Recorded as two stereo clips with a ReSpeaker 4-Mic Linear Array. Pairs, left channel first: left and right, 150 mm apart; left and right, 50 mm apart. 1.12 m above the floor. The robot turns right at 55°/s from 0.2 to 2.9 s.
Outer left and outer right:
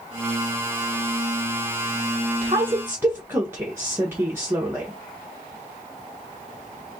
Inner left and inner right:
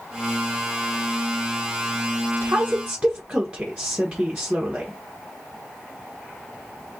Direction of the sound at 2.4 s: 40° right (ahead or behind).